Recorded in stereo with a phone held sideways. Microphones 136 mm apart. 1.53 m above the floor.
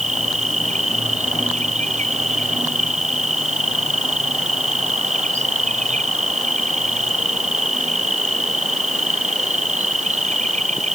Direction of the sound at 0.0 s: 65° right (ahead or behind).